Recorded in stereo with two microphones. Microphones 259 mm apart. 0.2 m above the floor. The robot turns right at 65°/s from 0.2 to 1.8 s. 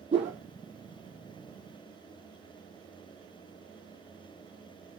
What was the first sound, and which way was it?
A whoosh, 20° right (ahead or behind).